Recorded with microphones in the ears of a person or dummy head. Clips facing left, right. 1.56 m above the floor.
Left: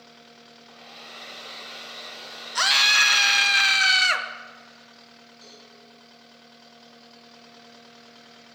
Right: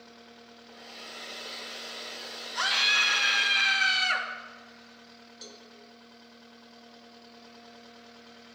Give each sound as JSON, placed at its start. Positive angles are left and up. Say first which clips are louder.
{"t": 0.7, "sound": "a hair dryer", "louder": "left 1 dB", "side_deg": -5, "distance_m": 1.1}
{"t": 2.5, "sound": "a scream", "louder": "left 6 dB", "side_deg": 70, "distance_m": 1.5}
{"t": 5.4, "sound": "a cowbell", "louder": "right 1 dB", "side_deg": -60, "distance_m": 1.2}